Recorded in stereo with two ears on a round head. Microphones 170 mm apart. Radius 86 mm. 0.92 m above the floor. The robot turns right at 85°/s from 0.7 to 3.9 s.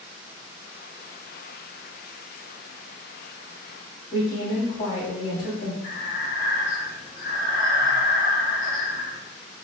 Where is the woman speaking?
45° left (ahead or behind), 1.9 m.